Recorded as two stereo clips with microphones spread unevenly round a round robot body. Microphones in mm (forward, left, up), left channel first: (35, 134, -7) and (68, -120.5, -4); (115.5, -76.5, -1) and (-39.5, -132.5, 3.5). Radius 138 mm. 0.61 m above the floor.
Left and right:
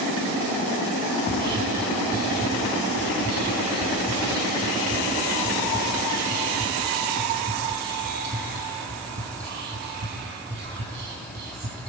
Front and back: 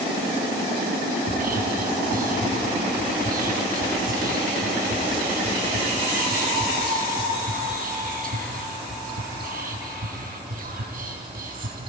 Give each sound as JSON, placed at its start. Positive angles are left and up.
{"t": 1.2, "sound": "whispering", "azimuth_deg": -135, "distance_m": 4.5}